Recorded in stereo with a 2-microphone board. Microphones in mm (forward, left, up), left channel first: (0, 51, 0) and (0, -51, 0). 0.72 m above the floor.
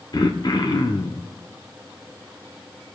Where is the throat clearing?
50° left (ahead or behind), 0.8 m.